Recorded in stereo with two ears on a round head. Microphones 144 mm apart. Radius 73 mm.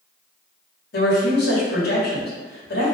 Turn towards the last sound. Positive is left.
turn(degrees=70)  # may be behind; listen again after turning